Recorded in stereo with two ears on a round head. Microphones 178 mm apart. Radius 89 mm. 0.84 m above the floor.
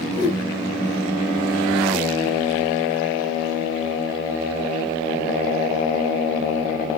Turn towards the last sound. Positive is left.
turn(degrees=20)  # may be behind; listen again after turning